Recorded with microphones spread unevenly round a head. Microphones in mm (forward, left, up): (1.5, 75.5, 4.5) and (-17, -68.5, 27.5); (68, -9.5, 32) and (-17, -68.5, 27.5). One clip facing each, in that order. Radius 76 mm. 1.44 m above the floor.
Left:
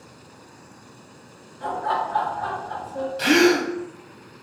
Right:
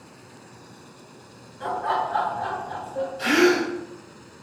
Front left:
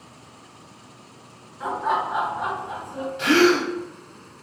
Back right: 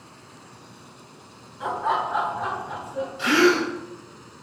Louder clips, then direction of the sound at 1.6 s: Even, even; 65° right.